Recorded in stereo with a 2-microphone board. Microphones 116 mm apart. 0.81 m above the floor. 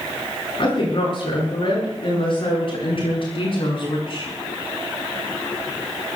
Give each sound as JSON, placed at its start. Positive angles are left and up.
{"t": 0.6, "sound": "a woman speaking", "side_deg": 50, "distance_m": 10.0}